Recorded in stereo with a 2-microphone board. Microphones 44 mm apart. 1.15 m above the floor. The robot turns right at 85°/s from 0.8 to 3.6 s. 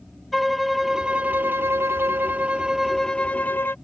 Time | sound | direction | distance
0.3 | a violin | straight behind | ?